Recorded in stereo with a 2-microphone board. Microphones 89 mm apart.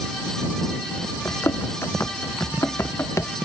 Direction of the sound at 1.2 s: 25° left (ahead or behind).